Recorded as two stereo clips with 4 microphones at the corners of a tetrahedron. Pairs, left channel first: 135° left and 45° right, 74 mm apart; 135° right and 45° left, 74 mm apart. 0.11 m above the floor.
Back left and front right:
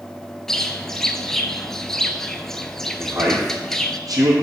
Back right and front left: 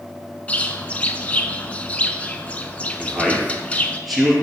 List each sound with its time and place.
0.5 s a bird: 155° right, 0.5 m
3.0 s a man speaking: 45° right, 3 m